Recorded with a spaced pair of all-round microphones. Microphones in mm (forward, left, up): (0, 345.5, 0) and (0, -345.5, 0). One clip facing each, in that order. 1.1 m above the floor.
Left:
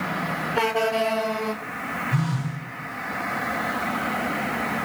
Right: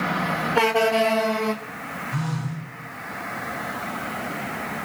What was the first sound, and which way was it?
A phone buzzing, 60° left (ahead or behind).